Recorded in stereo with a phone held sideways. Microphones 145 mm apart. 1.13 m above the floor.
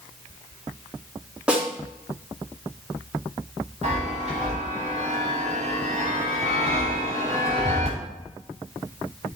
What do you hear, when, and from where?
1.5 s a snare drum: 5° right (ahead or behind), 3 m
3.8 s a chime: 50° right (ahead or behind), 4.5 m